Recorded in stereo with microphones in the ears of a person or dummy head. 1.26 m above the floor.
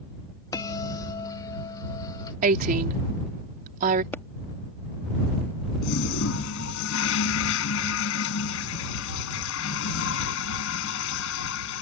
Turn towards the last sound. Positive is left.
turn(degrees=75)  # may be behind; listen again after turning